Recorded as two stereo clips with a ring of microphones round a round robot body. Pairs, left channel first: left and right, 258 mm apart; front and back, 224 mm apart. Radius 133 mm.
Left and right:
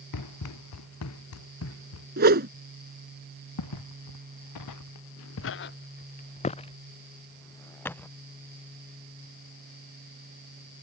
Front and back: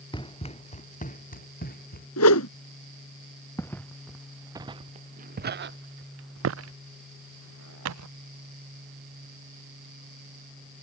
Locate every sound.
0.1 s running footsteps: 70° left; by 2.1 s 50° left
2.2 s a whoosh: 35° right
3.6 s footsteps: 80° left; by 8.1 s 175° left